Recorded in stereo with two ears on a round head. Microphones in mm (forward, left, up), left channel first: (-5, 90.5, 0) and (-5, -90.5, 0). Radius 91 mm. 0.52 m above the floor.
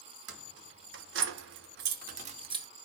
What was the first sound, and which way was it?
Keys jangling, 60° right (ahead or behind).